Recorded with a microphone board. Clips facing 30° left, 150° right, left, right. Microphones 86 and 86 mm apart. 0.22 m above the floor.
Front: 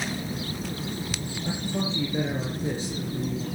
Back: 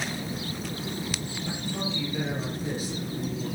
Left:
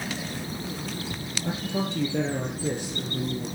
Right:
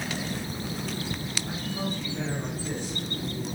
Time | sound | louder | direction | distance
1.4 | a man speaking | front 4 dB, left 5 dB | 90° left | 6 m